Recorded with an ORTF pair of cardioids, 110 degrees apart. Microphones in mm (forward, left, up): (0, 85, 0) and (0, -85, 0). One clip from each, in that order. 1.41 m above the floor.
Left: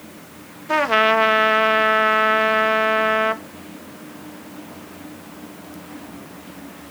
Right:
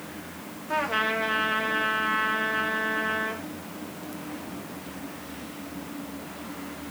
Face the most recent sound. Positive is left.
turn(degrees=55)